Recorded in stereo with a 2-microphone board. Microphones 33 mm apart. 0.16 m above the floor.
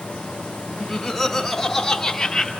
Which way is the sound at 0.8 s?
5° left (ahead or behind).